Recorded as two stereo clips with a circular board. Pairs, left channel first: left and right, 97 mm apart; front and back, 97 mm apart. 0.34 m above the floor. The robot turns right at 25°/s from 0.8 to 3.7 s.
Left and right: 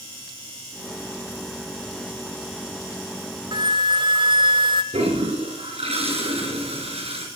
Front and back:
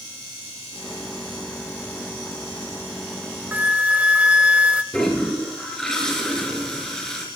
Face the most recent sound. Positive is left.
turn(degrees=-85)